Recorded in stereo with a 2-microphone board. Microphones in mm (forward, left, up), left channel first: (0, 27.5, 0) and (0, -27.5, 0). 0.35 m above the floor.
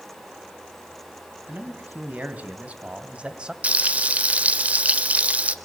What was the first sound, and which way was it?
A man speaking, 35° right (ahead or behind).